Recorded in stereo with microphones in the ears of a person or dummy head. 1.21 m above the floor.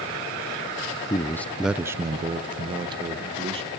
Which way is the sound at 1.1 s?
15° left (ahead or behind).